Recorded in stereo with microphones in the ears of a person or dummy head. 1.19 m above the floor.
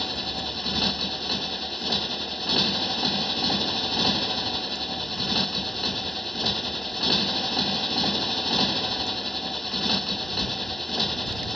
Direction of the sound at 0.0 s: 5° left (ahead or behind).